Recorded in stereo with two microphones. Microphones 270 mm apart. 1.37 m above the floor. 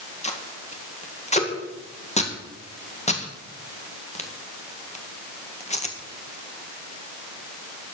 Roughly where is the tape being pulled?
Left.